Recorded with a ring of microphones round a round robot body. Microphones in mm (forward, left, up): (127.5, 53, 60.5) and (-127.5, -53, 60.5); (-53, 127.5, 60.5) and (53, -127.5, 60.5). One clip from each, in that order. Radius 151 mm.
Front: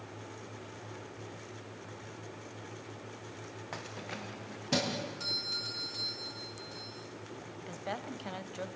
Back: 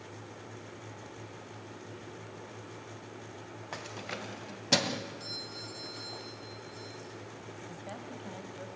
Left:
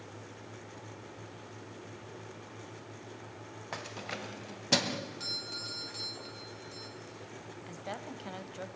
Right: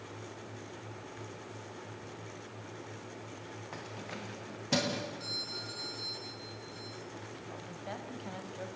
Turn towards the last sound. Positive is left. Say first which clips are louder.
# front 7 dB, left 3 dB
turn(degrees=55)